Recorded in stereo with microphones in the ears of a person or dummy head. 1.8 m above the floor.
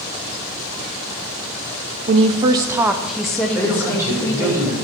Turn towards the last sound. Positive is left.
turn(degrees=-10)  # may be behind; listen again after turning